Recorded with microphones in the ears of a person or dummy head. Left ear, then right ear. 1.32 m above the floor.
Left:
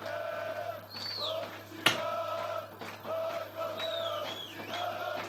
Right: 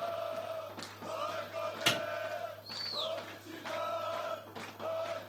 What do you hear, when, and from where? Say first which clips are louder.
1.9 s a clap: left 3 dB; 25° left (ahead or behind), 0.7 m